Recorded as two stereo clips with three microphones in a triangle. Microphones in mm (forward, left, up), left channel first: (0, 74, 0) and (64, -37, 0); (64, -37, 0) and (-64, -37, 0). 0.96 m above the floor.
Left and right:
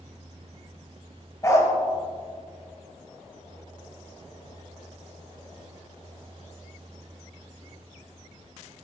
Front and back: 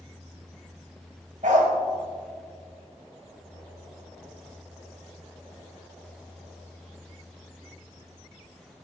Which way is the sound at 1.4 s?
175° right.